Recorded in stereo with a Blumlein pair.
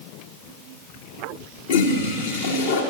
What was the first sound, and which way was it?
A toilet flushing, 60° left.